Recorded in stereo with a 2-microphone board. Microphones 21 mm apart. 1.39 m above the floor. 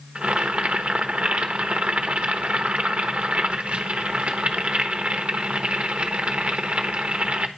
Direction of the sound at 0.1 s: 70° right (ahead or behind).